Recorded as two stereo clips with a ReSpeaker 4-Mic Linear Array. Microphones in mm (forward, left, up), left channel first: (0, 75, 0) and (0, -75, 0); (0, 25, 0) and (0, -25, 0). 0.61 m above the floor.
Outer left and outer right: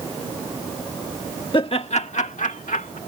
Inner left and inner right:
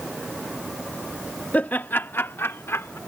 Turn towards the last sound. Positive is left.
turn(degrees=65)  # may be behind; listen again after turning